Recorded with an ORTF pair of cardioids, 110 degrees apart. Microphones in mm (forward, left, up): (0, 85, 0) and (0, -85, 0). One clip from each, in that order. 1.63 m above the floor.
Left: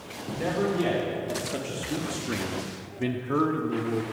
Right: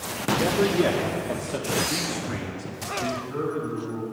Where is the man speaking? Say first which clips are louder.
Right 4 dB; 40° right, 1.3 m; by 4.0 s 75° left, 1.2 m.